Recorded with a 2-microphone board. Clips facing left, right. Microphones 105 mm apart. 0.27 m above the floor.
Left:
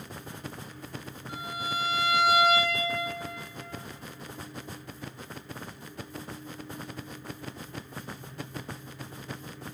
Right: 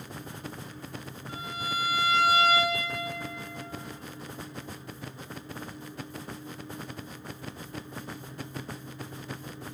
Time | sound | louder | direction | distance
1.3 | a violin | even | 20° left (ahead or behind) | 2.5 m